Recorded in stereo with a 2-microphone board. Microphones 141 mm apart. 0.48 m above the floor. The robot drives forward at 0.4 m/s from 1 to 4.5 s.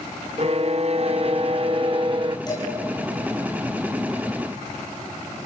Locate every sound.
0.4 s a violin: 50° right (ahead or behind), 0.7 m; by 2.4 s 35° right (ahead or behind), 0.9 m
2.5 s dishes clattering: 30° left (ahead or behind), 5 m